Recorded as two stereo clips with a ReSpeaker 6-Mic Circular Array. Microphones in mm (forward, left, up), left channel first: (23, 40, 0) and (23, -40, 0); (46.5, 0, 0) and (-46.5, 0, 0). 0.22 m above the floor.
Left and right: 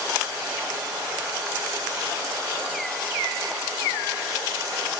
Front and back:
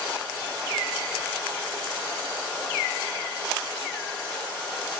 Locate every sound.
Only background noise.